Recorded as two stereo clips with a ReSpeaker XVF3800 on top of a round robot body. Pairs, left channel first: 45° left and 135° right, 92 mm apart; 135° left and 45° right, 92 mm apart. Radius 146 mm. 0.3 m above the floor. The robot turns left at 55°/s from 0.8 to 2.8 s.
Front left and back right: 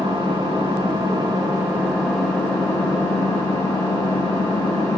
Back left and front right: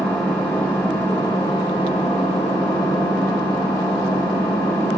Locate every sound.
0.0 s an engine running: 150° right, 1.4 m; by 5.0 s 100° left, 1.4 m